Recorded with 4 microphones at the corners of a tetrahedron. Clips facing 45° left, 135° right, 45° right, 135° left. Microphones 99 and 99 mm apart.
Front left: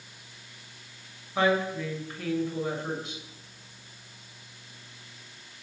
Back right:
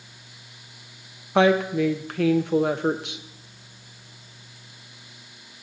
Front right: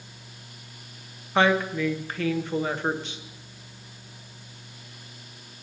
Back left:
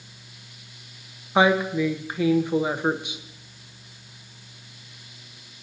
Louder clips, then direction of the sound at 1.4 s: Back right 7 dB, back left 2 dB; 150° right.